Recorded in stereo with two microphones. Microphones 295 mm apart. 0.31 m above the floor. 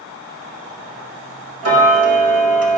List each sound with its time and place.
1.6 s ticking: 55° right (ahead or behind), 0.6 m